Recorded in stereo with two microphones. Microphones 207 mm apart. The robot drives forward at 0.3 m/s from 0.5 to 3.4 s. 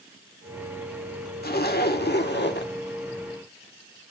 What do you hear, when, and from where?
1.4 s a zipper: 50° left (ahead or behind), 1.9 m; by 2.7 s 60° left (ahead or behind), 1.7 m